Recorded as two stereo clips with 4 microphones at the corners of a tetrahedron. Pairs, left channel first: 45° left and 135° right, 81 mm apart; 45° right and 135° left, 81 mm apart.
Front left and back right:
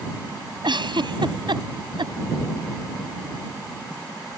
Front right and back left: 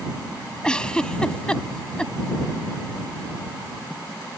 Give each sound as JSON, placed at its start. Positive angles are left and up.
{"t": 0.6, "sound": "a giggle", "azimuth_deg": -125}